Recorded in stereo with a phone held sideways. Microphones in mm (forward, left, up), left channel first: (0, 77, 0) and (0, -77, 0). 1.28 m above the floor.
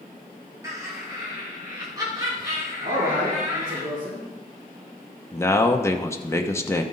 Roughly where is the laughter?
Right.